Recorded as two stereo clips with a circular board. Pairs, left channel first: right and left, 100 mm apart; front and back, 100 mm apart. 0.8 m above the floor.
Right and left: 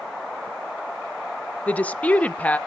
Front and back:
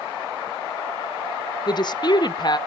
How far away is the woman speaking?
About 0.7 m.